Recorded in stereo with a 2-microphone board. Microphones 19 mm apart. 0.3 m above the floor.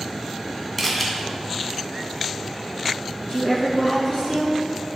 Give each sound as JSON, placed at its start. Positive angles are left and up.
{"t": 0.8, "sound": "a camera shutter", "side_deg": 10, "distance_m": 2.0}
{"t": 3.2, "sound": "a woman speaking", "side_deg": 55, "distance_m": 3.5}